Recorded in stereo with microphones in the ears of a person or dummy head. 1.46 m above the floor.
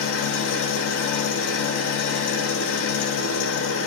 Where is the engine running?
75° left (ahead or behind), 1.1 m.